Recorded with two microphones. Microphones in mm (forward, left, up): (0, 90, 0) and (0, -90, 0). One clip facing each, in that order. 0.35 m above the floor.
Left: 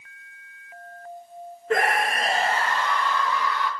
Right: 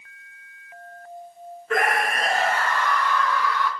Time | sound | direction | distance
1.7 | a scream | 30° left (ahead or behind) | 4.5 m